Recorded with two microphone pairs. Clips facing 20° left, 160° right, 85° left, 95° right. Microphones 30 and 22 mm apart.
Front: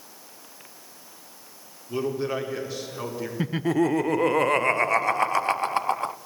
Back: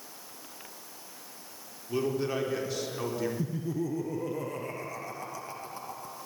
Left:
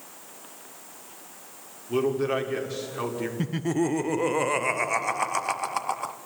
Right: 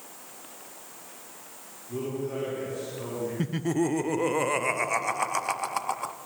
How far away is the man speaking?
About 4 m.